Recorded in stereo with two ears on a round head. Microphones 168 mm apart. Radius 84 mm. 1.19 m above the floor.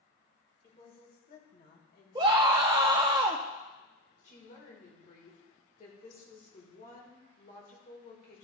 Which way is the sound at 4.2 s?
45° left (ahead or behind).